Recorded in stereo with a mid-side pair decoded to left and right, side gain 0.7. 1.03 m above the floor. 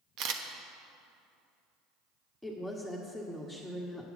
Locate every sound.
0.2 s a camera shutter: 60° right, 1.2 m
2.4 s a woman speaking: straight ahead, 1.5 m